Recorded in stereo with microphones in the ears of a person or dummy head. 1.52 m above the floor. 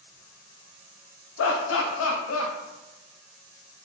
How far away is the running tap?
No running tap in this recording.